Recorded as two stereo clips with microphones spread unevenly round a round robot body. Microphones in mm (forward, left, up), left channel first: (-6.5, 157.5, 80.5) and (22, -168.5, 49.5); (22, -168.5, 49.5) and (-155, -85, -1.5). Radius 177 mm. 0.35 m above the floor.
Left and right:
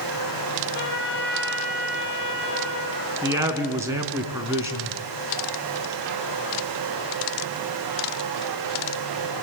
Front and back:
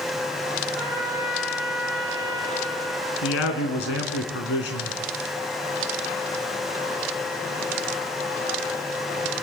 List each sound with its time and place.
0.8 s a trumpet: 65° left, 5.5 m
3.2 s a man speaking: 5° right, 3.5 m